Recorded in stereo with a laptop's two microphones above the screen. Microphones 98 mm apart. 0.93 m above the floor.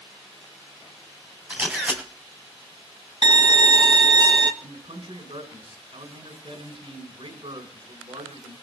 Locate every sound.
1.5 s a camera shutter: 15° right (ahead or behind), 2 m
3.2 s a violin: 50° right (ahead or behind), 1.2 m
4.6 s a man speaking: 70° right (ahead or behind), 4.5 m